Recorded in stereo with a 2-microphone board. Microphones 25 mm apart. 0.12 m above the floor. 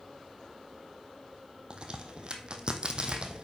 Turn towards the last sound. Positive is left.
turn(degrees=-40)  # may be behind; listen again after turning